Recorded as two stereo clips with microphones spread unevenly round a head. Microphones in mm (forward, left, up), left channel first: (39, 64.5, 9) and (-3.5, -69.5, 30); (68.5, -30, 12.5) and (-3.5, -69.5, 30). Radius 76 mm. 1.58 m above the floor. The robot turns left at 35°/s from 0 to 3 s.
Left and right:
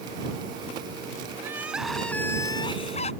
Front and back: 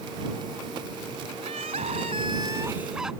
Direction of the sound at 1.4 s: Straight behind.